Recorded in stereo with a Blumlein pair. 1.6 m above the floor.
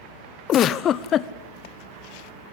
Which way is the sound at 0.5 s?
30° left.